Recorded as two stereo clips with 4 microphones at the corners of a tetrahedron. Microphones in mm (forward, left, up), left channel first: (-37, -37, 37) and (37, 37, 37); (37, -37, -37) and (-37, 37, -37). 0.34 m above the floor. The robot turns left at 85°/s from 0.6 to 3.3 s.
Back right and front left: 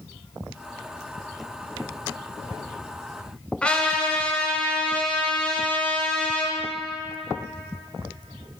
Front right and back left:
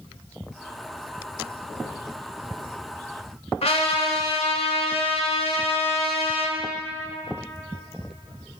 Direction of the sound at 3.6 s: 55° right.